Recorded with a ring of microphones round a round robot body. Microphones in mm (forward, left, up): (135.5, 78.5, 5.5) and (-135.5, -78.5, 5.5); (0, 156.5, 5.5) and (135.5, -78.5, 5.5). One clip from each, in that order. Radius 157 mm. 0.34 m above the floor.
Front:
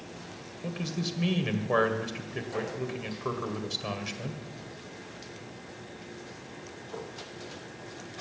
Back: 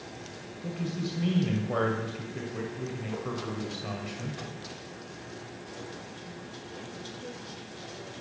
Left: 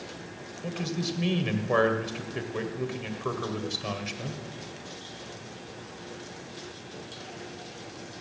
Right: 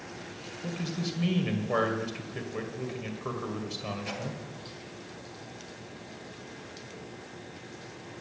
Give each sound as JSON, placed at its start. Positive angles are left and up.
{"t": 0.6, "sound": "a man speaking", "azimuth_deg": 55, "distance_m": 1.9}